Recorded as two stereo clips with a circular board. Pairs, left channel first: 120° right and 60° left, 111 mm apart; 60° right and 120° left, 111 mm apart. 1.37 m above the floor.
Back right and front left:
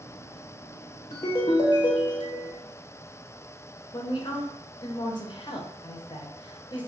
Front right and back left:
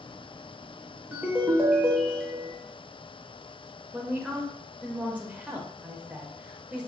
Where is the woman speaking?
165° right, 0.6 m.